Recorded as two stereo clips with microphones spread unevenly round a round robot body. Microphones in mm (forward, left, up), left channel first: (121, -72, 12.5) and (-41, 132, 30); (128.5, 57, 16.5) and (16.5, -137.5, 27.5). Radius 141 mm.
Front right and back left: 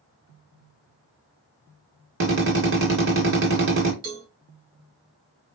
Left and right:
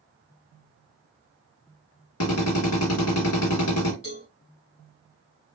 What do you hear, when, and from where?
2.2 s a drill: 90° left, 2 m
4.0 s a cowbell: 120° left, 2.5 m